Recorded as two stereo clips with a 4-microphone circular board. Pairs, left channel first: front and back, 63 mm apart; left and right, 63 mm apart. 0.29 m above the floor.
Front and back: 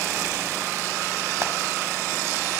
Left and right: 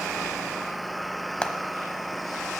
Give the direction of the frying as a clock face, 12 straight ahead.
7 o'clock.